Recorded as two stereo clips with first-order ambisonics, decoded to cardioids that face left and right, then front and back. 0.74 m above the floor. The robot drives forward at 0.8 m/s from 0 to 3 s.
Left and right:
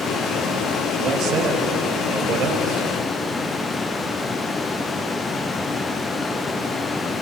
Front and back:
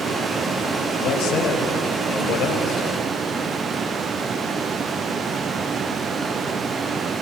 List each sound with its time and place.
1.0 s a man speaking: 30° right, 5 m; by 2.9 s 40° right, 4 m